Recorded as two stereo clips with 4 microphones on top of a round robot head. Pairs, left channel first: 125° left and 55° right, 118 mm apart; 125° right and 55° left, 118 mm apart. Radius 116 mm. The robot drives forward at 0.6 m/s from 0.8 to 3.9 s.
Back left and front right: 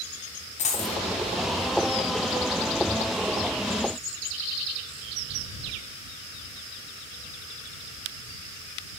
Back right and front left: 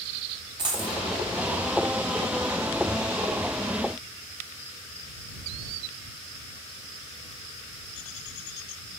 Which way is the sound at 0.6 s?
105° left.